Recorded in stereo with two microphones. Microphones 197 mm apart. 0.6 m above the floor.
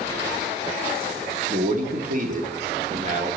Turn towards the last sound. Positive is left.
turn(degrees=-35)  # may be behind; listen again after turning